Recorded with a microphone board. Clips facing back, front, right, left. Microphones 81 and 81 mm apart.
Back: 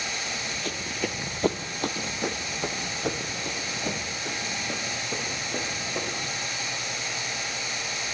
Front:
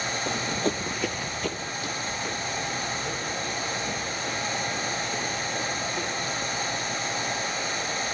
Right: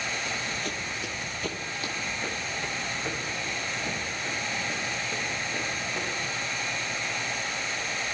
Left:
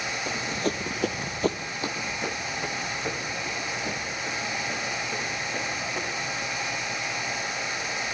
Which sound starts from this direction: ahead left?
Running footsteps, at 0.3 s.